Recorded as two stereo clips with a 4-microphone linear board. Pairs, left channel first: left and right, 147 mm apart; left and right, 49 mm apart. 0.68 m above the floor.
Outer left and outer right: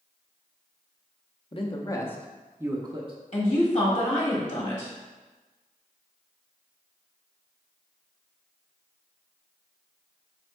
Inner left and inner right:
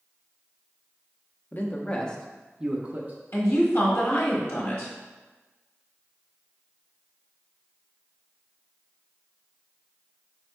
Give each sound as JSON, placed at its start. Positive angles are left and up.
{"t": 1.5, "sound": "a man speaking", "side_deg": 40, "distance_m": 0.7}
{"t": 3.3, "sound": "a woman speaking", "side_deg": 45, "distance_m": 1.3}